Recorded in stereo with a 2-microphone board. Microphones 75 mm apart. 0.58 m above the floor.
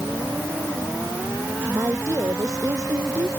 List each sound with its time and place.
1.7 s a woman speaking: 45° right (ahead or behind)